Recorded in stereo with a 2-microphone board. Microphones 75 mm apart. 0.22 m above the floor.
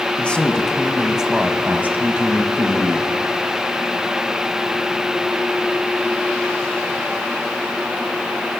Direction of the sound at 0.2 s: 15° left (ahead or behind).